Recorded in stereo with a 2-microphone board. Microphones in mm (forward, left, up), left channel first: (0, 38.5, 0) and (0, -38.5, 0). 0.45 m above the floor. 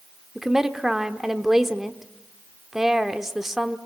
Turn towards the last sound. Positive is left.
turn(degrees=-5)  # may be behind; listen again after turning